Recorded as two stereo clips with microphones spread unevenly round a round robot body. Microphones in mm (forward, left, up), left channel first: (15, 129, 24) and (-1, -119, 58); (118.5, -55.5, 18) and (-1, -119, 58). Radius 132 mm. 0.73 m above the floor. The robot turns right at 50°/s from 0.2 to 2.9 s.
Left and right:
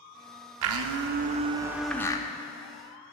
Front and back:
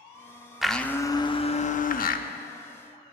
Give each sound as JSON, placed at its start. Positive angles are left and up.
{"t": 0.6, "sound": "a blender", "azimuth_deg": -70, "distance_m": 0.6}